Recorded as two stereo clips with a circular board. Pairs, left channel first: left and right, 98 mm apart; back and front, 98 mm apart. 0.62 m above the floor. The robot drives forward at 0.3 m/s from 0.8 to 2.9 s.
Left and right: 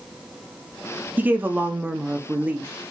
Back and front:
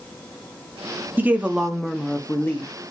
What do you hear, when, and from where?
1.2 s a woman speaking: 40° right, 0.6 m; by 2.9 s 150° right, 0.6 m